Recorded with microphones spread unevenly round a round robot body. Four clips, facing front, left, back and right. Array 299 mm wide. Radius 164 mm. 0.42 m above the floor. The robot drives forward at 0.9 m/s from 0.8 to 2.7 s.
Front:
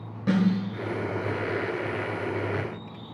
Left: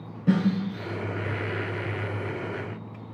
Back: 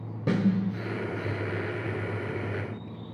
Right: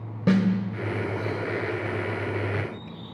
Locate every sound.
0.3 s a snare drum: 95° right, 1.1 m